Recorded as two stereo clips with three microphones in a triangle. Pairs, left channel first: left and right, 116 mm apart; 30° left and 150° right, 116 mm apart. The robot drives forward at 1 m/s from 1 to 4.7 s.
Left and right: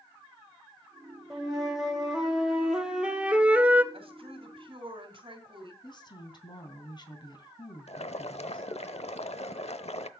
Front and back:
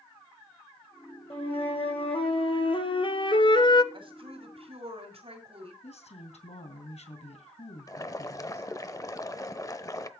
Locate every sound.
1.3 s a flute: 5° right, 3 m; by 3.8 s 20° right, 0.7 m
3.9 s a woman speaking: 115° right, 3 m; by 5.7 s 130° right, 3.5 m
5.8 s a woman speaking: 45° left, 3 m
7.9 s boiling: 85° left, 0.8 m